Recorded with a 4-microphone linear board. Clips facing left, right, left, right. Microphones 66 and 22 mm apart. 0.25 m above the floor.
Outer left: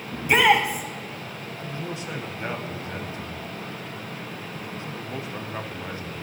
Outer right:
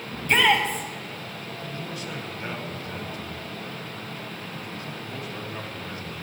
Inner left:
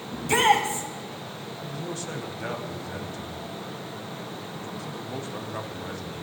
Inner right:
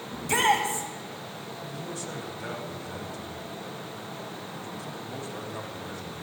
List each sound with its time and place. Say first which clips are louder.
0.1 s a shout: outer left 2 dB, inner left 3 dB; 10° left (ahead or behind), 1.1 m
1.6 s a man speaking: outer left 3 dB, inner left 4 dB; 20° left (ahead or behind), 1.4 m